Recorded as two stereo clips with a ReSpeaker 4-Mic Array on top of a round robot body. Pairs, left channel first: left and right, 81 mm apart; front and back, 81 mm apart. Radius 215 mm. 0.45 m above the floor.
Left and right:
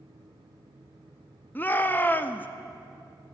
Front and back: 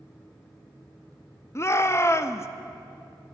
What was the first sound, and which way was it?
A shout, 35° left.